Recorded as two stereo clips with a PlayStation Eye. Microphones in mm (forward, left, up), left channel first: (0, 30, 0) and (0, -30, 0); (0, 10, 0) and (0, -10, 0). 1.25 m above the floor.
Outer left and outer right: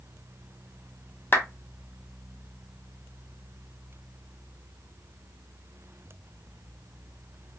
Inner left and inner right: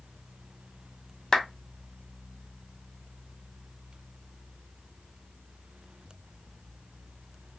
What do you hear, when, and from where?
1.3 s a clap: 40° left (ahead or behind), 0.5 m